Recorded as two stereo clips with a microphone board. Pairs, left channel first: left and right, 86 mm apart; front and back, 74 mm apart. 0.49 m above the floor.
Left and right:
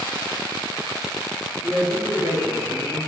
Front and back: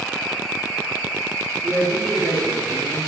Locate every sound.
1.6 s a man speaking: 90° left, 0.7 m